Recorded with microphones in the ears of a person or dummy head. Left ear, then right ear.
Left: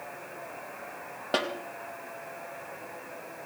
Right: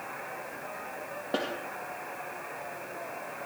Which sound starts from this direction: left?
A snare drum, at 1.3 s.